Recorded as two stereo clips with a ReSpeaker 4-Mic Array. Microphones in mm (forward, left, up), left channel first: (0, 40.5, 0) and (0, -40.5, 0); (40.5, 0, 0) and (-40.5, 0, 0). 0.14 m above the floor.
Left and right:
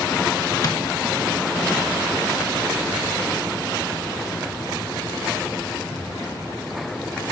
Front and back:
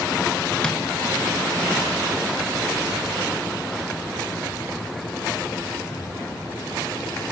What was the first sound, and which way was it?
Tapping, 75° left.